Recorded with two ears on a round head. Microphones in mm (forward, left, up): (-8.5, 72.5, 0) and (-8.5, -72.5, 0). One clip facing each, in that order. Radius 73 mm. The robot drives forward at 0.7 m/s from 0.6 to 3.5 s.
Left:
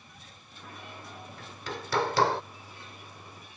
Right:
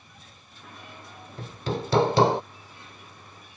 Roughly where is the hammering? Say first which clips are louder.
Right 10 dB; right.